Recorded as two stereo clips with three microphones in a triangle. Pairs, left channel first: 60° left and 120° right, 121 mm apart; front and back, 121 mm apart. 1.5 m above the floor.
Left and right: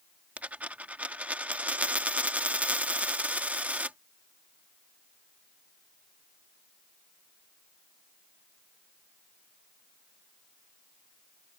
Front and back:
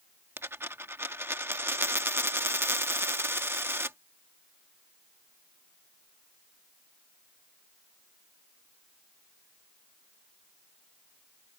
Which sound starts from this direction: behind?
A dropped coin, at 0.4 s.